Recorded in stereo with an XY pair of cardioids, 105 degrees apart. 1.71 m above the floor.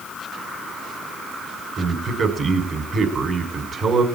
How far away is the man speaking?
About 7 m.